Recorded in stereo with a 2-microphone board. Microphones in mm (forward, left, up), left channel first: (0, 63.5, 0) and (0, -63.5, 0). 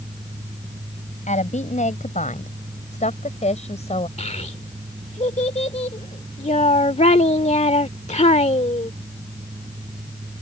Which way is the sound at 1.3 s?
75° left (ahead or behind).